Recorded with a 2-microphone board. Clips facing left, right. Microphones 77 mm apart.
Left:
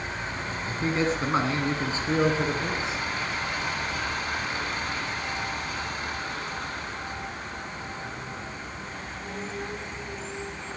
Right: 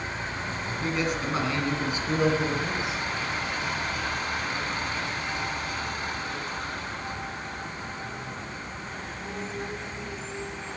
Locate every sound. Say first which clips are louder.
0.7 s a man speaking: left 3 dB; 35° left (ahead or behind), 1.7 m; by 3.0 s 30° left (ahead or behind), 3 m